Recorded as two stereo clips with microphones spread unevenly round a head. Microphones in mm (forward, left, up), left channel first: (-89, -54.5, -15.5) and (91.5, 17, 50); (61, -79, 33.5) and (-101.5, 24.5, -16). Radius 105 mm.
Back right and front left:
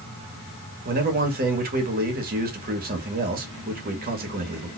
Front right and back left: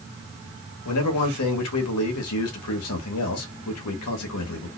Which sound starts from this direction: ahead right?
A man speaking, at 0.8 s.